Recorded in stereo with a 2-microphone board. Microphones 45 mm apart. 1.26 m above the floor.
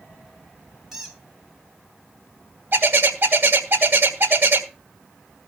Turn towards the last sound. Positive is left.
turn(degrees=-55)  # may be behind; listen again after turning